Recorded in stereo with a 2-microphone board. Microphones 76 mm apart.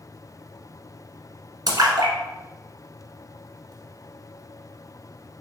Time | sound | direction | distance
1.7 | a splash | 55° right (ahead or behind) | 1.1 m